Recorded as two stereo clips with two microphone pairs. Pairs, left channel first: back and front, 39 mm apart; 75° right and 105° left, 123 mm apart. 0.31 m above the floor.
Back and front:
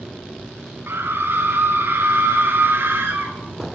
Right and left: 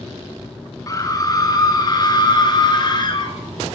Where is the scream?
10° right, 4.5 m; by 3.4 s 25° right, 6 m.